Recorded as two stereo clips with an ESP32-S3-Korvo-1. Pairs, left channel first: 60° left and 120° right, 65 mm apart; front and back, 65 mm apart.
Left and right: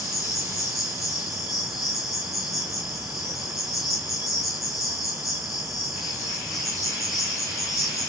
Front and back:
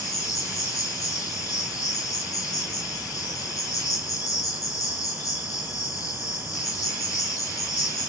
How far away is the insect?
About 5.5 m.